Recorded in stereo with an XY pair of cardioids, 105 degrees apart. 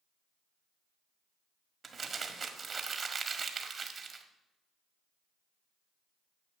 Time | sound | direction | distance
1.8 | crumpling | 40° right | 1.5 m